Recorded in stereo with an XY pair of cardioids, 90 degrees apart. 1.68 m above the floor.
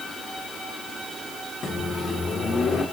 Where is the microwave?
55° left, 4.5 m.